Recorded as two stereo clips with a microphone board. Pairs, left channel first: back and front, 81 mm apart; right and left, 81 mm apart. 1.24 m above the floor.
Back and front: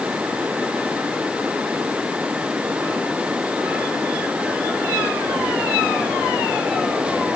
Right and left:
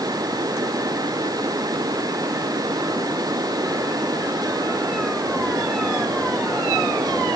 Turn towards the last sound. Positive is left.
No sound to turn to.